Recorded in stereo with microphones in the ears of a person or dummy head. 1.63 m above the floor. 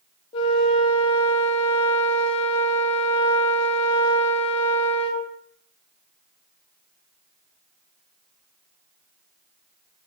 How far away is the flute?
About 0.6 m.